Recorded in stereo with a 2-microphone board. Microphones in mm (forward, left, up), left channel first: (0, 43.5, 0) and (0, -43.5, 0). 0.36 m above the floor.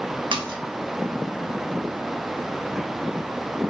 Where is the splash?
65° right (ahead or behind), 0.7 m.